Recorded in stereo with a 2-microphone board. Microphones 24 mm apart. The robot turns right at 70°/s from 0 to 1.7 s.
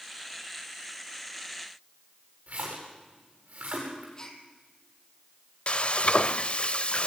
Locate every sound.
2.5 s a splash: 80° right, 9.5 m
4.2 s a gasp: 25° left (ahead or behind), 2.5 m
5.7 s frying: 50° left (ahead or behind), 0.6 m